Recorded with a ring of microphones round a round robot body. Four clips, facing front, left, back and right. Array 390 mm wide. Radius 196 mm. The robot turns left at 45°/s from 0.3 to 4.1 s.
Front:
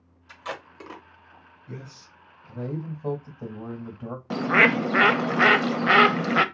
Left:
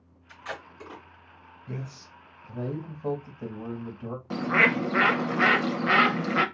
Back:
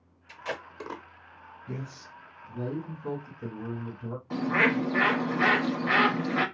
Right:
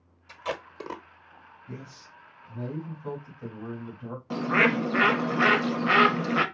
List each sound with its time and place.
0.3 s tape being pulled: 80° right, 0.9 m; by 1.0 s 110° right, 0.9 m
1.7 s a man speaking: 120° left, 1.6 m; by 4.2 s 10° left, 1.6 m
4.3 s a bird: 5° right, 0.7 m